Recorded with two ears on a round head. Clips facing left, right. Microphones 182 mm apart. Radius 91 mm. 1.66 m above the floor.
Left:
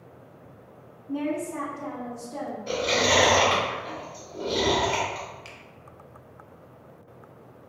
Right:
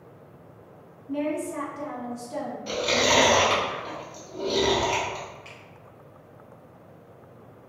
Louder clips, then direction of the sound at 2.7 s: Even; 40° right (ahead or behind).